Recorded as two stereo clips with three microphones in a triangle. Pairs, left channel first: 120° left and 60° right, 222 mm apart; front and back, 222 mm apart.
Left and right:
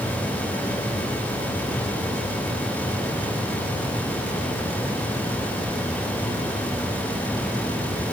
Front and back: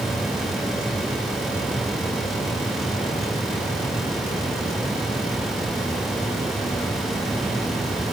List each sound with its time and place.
Only background noise.